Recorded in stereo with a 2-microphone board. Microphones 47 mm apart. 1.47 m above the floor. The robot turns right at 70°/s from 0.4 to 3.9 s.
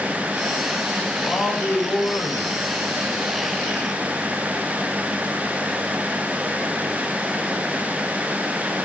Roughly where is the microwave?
I don't hear a microwave.